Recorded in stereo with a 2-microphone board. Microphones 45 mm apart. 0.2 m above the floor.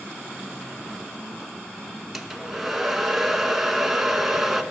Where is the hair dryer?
5° right (ahead or behind), 1.0 m.